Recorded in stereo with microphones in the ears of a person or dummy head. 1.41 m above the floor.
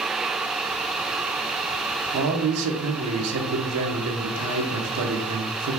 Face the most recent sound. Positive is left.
turn(degrees=-75)  # may be behind; listen again after turning